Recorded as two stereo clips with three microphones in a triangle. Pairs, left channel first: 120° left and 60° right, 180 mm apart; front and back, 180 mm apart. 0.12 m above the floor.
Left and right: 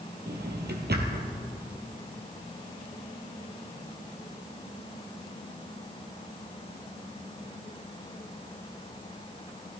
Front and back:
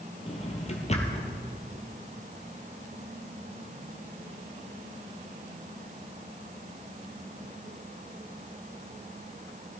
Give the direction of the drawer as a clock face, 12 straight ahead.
2 o'clock.